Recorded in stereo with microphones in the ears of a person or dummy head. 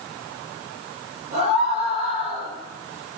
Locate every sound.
1.3 s a scream: 45° right (ahead or behind), 6.5 m